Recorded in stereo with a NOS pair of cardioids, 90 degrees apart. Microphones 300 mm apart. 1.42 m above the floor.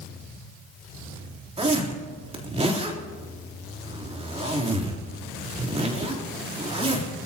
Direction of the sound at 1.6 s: 20° right.